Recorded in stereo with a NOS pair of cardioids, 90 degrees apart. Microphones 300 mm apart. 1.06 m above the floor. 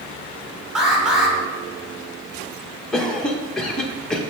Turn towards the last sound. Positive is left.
turn(degrees=0)